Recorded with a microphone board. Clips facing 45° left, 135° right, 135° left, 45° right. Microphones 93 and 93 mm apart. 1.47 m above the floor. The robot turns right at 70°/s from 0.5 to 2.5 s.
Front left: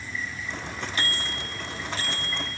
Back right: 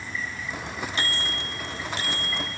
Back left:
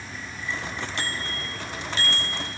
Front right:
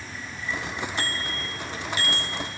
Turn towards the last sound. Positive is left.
turn(degrees=-95)